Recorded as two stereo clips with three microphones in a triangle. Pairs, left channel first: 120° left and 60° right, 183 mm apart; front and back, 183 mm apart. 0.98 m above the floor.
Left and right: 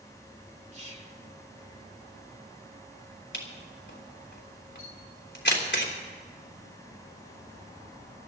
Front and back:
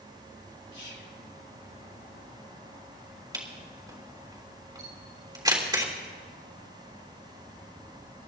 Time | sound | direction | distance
0.7 | whispering | 10° right | 2.5 m
3.3 | a camera shutter | 115° left | 3 m